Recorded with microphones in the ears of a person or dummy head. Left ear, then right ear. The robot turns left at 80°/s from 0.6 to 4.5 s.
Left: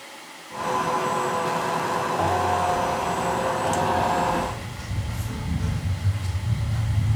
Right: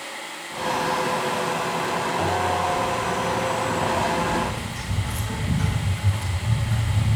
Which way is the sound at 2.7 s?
65° left (ahead or behind).